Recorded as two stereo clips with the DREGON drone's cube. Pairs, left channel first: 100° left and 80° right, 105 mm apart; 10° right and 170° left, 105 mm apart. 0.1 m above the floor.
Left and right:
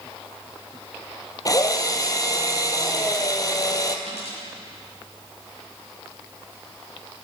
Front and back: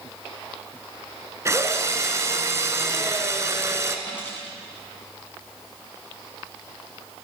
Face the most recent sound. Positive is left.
turn(degrees=-80)